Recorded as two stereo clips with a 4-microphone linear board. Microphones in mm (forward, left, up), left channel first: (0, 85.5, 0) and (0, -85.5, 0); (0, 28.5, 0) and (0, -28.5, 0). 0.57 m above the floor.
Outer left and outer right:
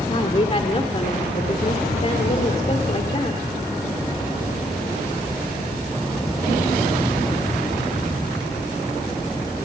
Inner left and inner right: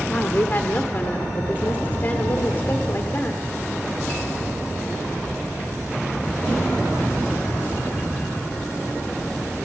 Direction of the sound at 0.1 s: 40° left (ahead or behind).